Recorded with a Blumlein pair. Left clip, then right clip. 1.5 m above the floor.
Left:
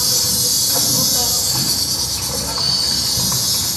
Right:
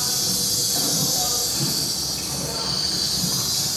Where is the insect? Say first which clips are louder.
Left 6 dB; 45° left, 4.5 m.